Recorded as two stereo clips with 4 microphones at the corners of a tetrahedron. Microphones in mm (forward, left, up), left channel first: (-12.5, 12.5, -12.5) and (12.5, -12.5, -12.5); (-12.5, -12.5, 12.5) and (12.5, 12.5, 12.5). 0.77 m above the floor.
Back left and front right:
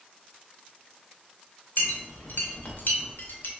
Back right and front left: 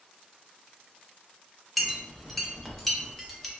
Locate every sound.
1.8 s a clink: 140° left, 0.6 m